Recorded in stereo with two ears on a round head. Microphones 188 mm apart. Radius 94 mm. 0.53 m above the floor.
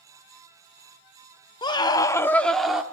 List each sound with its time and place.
1.6 s a scream: 20° left (ahead or behind), 0.8 m; by 2.8 s 5° right (ahead or behind), 0.9 m